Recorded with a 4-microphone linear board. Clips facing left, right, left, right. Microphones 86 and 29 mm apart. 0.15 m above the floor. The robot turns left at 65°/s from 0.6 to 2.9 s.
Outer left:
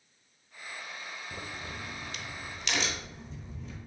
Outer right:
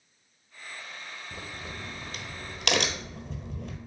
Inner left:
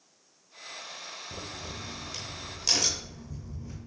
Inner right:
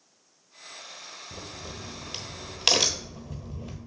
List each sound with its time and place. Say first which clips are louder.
1.3 s a crack: outer right 1 dB, inner right 1 dB; 5° left (ahead or behind), 1.0 m; by 3.9 s 75° right (ahead or behind), 1.0 m